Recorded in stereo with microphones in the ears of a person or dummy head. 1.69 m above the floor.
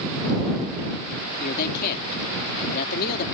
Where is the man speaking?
50° left (ahead or behind).